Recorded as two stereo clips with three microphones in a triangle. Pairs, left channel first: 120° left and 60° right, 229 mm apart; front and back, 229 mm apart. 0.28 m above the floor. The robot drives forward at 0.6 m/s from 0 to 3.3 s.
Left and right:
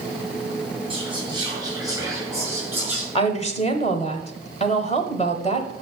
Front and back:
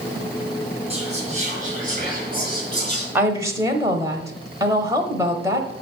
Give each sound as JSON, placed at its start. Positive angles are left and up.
{"t": 0.9, "sound": "whispering", "azimuth_deg": -120, "distance_m": 3.0}
{"t": 3.1, "sound": "a woman speaking", "azimuth_deg": 110, "distance_m": 0.9}